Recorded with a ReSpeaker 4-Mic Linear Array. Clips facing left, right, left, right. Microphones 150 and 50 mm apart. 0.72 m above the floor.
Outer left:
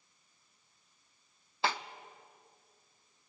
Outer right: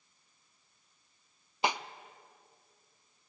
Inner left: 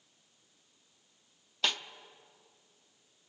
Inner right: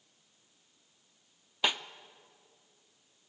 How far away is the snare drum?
About 0.7 m.